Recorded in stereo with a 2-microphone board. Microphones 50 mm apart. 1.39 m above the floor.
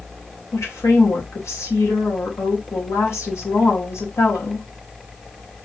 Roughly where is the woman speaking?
Left.